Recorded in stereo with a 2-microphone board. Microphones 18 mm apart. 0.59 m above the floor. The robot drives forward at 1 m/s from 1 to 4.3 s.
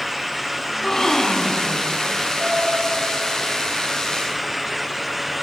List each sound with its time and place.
0.7 s a gasp: 20° left (ahead or behind), 1.9 m; by 1.9 s 15° left (ahead or behind), 2.5 m
2.4 s a piano: 85° right, 7.5 m